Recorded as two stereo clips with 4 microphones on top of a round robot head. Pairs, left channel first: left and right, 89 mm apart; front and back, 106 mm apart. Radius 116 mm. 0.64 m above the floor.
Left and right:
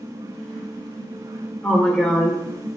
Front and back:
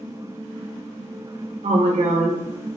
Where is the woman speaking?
170° left, 2 m.